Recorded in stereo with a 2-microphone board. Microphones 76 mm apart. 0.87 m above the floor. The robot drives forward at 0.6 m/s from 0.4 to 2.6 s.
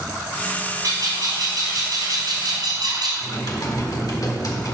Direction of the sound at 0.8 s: 55° right (ahead or behind).